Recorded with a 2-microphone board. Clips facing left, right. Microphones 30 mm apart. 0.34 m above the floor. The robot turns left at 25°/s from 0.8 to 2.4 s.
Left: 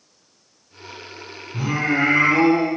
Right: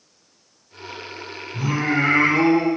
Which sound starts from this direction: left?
Singing, at 1.5 s.